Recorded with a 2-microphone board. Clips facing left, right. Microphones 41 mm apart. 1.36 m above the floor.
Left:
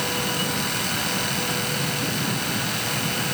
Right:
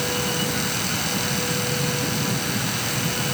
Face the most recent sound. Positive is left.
No sound to turn to.